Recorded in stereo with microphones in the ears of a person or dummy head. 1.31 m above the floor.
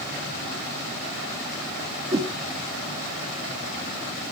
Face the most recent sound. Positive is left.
turn(degrees=-30)  # may be behind; listen again after turning